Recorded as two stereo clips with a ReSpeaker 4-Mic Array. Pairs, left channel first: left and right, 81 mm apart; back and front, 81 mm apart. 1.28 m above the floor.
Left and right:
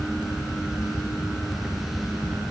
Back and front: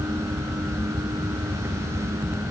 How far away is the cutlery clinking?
No cutlery clinking in this recording.